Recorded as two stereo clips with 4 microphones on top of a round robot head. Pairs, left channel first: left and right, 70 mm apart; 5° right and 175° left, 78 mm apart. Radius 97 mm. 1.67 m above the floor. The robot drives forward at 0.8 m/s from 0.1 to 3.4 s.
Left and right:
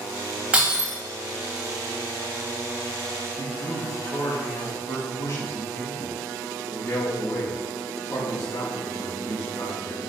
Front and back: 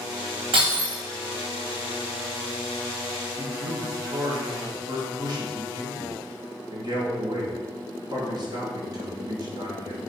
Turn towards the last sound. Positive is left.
turn(degrees=140)